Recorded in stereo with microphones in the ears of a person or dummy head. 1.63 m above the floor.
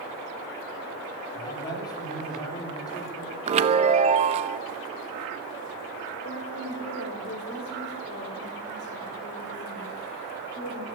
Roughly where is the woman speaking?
Left.